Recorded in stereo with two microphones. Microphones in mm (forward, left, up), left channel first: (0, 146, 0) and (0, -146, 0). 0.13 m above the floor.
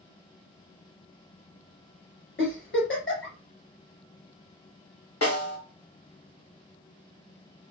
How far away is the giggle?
About 2.0 m.